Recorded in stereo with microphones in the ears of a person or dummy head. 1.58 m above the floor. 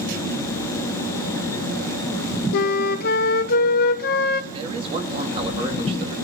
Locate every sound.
2.5 s a flute: 45° left (ahead or behind), 0.6 m
4.5 s a man speaking: 30° right (ahead or behind), 2.5 m